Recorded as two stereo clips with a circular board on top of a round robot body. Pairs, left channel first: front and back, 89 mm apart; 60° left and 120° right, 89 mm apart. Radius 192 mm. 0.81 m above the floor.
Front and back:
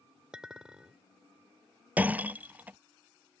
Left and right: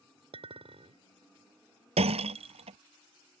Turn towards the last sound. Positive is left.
turn(degrees=-105)